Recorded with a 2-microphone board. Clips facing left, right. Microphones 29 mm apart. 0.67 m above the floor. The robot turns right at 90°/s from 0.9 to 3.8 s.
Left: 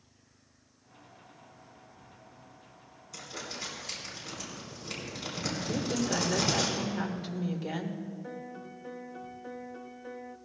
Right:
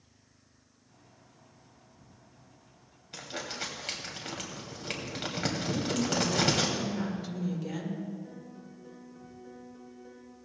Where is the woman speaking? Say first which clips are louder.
Left 1 dB; 25° left (ahead or behind), 1.9 m.